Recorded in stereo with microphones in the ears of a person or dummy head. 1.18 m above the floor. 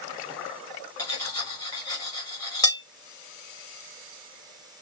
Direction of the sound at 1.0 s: 20° left (ahead or behind).